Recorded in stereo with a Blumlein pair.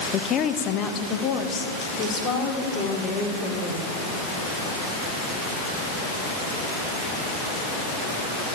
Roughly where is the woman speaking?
Ahead left.